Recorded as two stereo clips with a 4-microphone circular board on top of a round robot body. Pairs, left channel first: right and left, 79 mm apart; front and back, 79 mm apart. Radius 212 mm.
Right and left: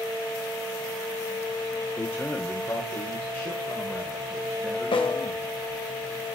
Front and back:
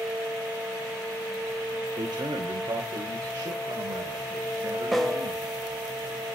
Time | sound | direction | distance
2.0 | a man speaking | 150° right | 2.5 m
4.9 | a snare drum | 90° right | 1.3 m